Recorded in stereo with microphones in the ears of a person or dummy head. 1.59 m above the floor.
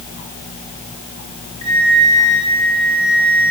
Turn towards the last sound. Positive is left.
turn(degrees=25)  # may be behind; listen again after turning